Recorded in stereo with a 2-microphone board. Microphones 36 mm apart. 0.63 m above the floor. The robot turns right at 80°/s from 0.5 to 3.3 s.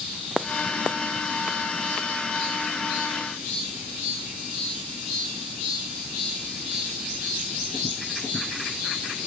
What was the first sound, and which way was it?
Only background noise.